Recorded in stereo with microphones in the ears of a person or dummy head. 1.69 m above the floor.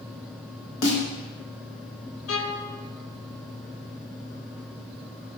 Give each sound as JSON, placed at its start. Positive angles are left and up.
{"t": 0.8, "sound": "a snare drum", "side_deg": 60, "distance_m": 1.2}
{"t": 2.3, "sound": "a violin", "side_deg": 85, "distance_m": 0.5}